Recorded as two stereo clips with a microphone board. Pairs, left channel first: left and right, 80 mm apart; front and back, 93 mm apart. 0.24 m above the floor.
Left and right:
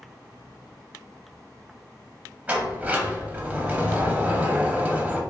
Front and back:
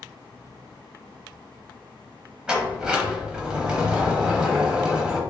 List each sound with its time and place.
2.5 s a sliding door: 120° right, 0.7 m